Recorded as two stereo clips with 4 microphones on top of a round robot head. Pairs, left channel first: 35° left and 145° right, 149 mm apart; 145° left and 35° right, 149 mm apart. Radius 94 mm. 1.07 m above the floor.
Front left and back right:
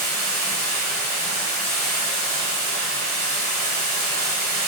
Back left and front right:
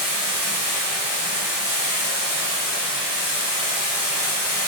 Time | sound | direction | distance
0.0 | running water | 110° left | 1.4 m